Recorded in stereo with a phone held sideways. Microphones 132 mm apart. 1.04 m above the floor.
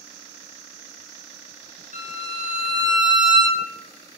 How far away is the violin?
About 0.5 m.